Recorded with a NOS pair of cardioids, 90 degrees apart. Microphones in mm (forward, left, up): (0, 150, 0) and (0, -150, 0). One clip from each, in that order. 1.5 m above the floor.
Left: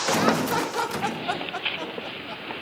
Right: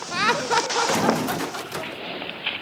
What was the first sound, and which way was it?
Laughter, 45° right.